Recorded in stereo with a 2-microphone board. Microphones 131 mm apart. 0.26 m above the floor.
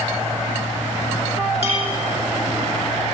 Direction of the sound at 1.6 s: 50° right (ahead or behind).